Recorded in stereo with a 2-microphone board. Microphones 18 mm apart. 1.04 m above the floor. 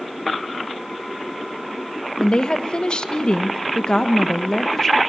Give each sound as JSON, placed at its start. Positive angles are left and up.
{"t": 2.2, "sound": "a woman speaking", "side_deg": 50, "distance_m": 1.4}